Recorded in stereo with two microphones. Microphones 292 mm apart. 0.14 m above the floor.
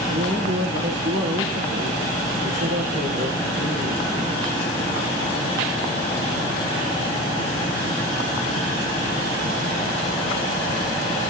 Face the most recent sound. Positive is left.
turn(degrees=-70)  # may be behind; listen again after turning